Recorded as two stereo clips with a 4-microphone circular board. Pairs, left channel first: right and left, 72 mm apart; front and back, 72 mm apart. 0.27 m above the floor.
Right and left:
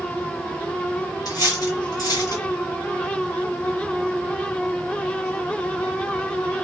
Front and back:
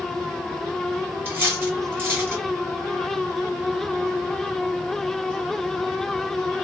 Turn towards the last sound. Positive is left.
turn(degrees=-120)